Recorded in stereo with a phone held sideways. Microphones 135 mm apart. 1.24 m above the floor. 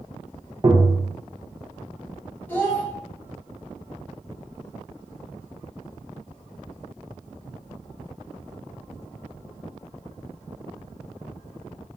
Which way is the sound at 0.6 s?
30° right (ahead or behind).